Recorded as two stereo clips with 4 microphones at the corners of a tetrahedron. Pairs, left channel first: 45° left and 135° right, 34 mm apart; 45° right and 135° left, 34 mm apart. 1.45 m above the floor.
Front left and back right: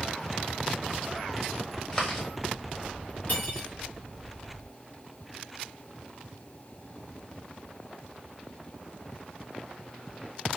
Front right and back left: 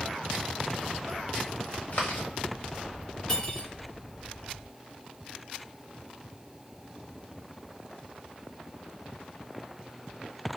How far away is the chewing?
About 1.1 m.